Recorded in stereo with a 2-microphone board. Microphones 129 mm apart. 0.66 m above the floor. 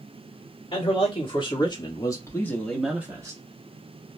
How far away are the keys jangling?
I don't hear keys jangling.